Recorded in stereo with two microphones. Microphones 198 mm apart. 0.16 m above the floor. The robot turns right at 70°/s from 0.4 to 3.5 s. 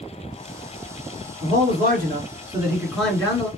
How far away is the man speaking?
About 1.7 m.